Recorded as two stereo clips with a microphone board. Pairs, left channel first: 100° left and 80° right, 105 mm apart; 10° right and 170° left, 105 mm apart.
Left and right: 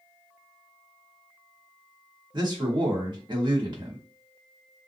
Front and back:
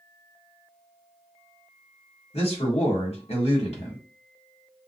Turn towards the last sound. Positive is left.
turn(degrees=-35)